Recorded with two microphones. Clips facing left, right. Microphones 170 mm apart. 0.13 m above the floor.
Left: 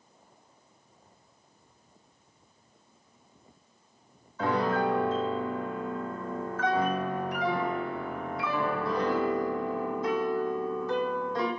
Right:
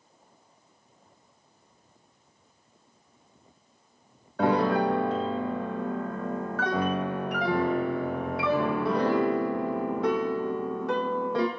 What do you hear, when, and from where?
4.4 s a piano: 75° right (ahead or behind), 1.2 m